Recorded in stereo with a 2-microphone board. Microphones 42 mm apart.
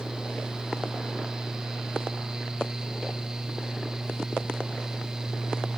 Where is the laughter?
I don't hear laughter.